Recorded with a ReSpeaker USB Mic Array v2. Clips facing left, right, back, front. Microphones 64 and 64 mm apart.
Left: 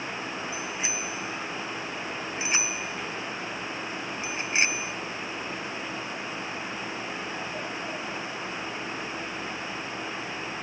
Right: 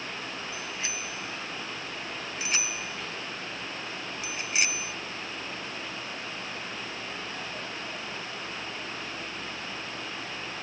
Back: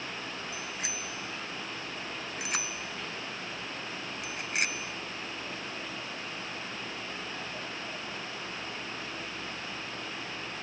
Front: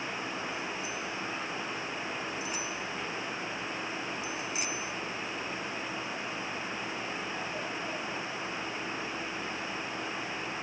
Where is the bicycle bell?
165° left; by 4.9 s 150° left.